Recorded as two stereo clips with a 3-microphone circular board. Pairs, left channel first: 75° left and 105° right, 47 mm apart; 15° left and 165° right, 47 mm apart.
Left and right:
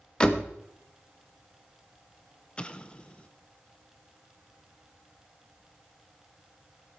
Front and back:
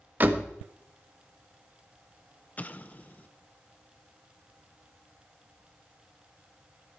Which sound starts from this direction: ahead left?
An explosion, at 2.6 s.